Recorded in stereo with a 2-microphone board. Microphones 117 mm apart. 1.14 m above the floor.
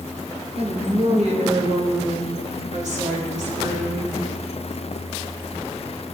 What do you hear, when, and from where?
0.6 s a woman speaking: 55° right (ahead or behind), 1.8 m; by 4.2 s 80° right, 3.5 m